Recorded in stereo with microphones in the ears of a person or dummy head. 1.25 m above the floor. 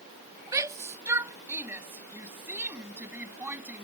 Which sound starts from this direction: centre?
A shout, at 0.5 s.